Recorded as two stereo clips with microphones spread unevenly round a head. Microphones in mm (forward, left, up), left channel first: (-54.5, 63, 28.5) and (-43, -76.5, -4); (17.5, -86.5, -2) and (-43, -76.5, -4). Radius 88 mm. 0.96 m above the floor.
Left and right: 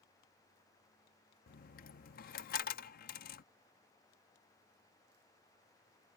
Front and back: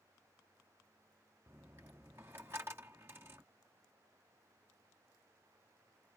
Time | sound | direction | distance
1.5 | a dropped coin | 100° left | ?